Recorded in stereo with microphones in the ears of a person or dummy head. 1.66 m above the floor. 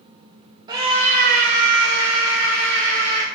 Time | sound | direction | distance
0.7 | a scream | 25° right (ahead or behind) | 0.6 m